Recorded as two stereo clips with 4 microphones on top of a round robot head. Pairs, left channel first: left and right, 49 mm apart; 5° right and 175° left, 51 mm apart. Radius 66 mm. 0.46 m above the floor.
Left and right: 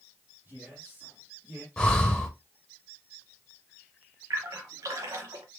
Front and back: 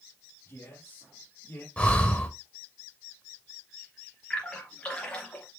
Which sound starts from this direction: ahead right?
A man speaking, at 0.5 s.